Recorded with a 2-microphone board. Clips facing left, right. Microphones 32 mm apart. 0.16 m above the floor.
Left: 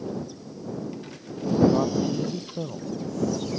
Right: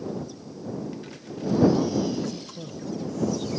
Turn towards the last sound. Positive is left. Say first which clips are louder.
# left 1 dB
turn(degrees=30)  # may be behind; listen again after turning